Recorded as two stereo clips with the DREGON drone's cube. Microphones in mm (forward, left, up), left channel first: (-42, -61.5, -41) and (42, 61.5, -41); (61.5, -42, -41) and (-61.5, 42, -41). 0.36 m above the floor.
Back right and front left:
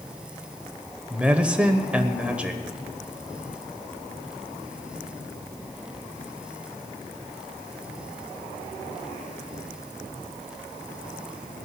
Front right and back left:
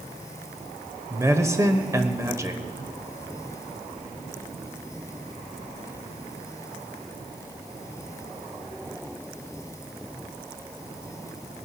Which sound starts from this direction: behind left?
A man speaking, at 1.1 s.